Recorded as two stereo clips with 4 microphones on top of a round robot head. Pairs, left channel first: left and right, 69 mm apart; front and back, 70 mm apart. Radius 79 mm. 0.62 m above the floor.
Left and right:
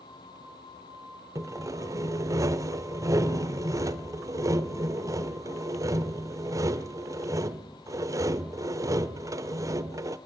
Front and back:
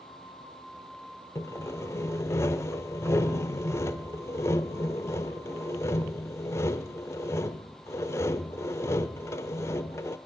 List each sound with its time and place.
1.4 s sawing: 50° right, 0.9 m